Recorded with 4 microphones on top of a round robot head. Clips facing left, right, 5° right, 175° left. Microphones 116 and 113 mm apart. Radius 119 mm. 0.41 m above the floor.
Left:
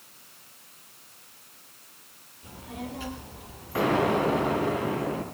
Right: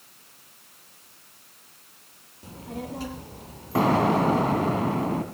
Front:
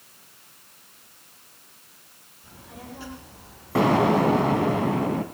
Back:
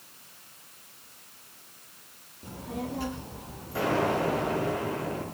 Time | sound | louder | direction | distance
2.4 | a child speaking | right 3 dB, back 8 dB | 145° right | 8 m
3.8 | an explosion | right 3 dB, front 7 dB | 35° right | 3 m